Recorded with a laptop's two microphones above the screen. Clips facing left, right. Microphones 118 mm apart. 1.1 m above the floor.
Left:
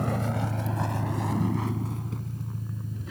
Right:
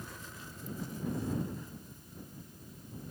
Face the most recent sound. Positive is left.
turn(degrees=85)